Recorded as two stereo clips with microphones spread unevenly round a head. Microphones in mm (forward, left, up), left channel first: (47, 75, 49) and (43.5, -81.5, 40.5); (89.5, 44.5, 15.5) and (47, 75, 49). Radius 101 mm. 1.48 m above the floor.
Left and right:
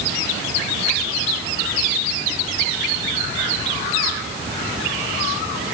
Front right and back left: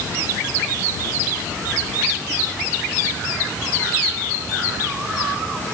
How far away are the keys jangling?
I don't hear keys jangling.